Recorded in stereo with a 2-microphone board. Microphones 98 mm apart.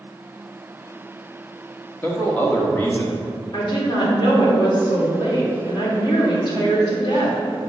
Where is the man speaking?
20° left (ahead or behind), 1.2 m.